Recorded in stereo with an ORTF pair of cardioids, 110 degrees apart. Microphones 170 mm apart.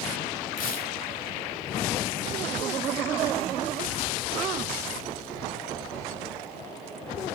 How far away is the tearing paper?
About 4 m.